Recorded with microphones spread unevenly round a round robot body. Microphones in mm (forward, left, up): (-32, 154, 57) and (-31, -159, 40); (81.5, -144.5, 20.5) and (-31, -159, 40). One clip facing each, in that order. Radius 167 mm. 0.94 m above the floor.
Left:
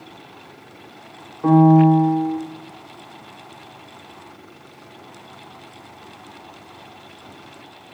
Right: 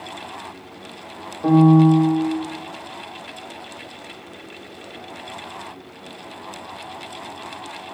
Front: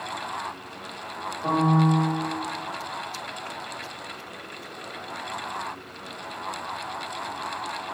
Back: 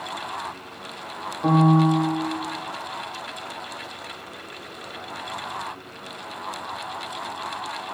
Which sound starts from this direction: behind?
A piano, at 1.4 s.